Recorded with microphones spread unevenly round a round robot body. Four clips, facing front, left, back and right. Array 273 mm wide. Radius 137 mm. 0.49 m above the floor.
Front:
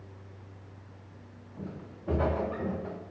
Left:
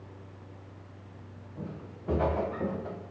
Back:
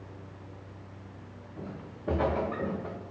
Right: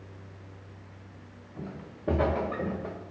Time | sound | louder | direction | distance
1.6 | footsteps | right 1 dB, even | 120° right | 1.9 m